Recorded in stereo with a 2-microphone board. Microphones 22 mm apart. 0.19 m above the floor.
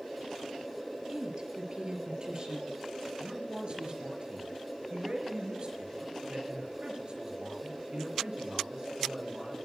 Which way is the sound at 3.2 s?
50° right (ahead or behind).